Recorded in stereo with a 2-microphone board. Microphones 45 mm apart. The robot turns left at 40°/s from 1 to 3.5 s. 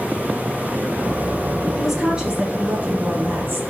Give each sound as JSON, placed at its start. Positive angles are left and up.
{"t": 1.8, "sound": "a woman speaking", "azimuth_deg": 0, "distance_m": 2.5}